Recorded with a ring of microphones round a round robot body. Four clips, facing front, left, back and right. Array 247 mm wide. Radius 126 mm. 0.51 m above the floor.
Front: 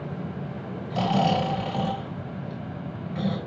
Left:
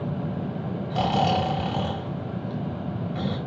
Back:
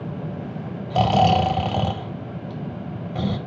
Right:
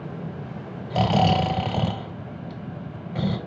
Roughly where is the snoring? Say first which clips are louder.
Right 2 dB, back 6 dB; behind right.